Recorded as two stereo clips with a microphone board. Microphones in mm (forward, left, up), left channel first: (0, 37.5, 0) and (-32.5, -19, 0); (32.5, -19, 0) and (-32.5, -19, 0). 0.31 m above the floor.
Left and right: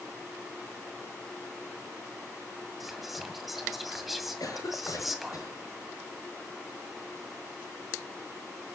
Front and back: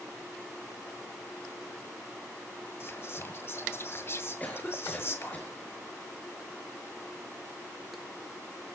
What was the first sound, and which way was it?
Whispering, 35° right.